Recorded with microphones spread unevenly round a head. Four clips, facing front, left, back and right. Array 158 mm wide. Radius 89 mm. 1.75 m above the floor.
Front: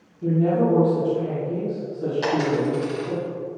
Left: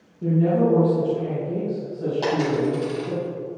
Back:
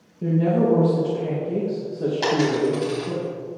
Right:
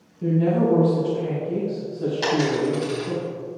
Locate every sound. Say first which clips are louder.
0.2 s a woman speaking: left 1 dB, even; 175° left, 2.5 m
2.2 s a dropped coin: right 1 dB, back 2 dB; 150° left, 3 m